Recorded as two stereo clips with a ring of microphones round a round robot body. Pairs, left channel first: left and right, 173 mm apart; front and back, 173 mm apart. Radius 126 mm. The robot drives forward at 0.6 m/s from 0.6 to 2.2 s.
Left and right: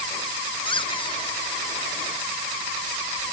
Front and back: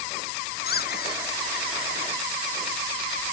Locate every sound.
0.7 s a squeak: 30° left